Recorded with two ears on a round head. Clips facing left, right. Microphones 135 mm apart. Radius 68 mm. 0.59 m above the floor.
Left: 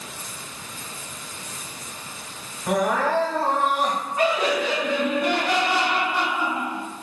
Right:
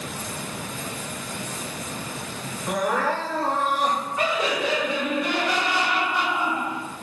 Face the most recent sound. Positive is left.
turn(degrees=35)  # may be behind; listen again after turning